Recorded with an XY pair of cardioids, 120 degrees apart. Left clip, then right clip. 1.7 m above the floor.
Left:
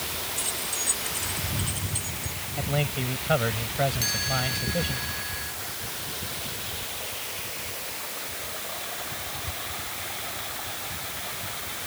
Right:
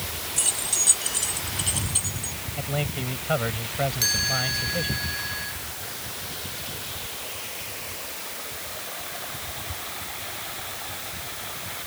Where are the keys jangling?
45° right; by 2.4 s 40° right.